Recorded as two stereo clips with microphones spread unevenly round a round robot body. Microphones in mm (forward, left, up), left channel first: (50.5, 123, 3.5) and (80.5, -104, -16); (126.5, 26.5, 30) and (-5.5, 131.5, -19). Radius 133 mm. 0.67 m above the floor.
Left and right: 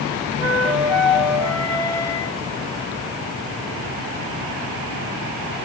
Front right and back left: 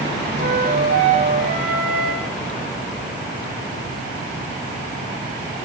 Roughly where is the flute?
Behind.